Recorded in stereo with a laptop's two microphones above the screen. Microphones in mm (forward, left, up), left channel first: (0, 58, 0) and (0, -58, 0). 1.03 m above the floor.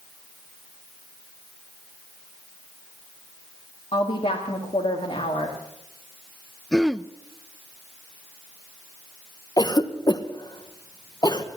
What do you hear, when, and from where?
3.9 s a woman speaking: 60° left (ahead or behind), 1.6 m
6.7 s throat clearing: centre (ahead or behind), 0.5 m
9.6 s a cough: 35° left (ahead or behind), 1.0 m